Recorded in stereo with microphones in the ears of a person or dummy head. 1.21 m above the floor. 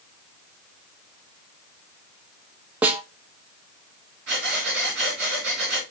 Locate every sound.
2.8 s a snare drum: 10° right (ahead or behind), 0.6 m
4.3 s breathing: 60° right (ahead or behind), 3 m